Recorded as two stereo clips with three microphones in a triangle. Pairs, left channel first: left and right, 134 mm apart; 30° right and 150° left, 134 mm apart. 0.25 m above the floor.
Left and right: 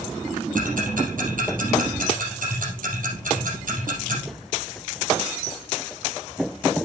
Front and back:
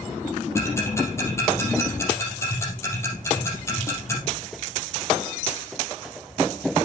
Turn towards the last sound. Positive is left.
turn(degrees=-100)